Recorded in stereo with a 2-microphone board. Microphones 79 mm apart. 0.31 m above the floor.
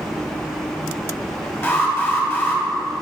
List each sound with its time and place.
1.6 s an alarm: 30° left (ahead or behind), 1.9 m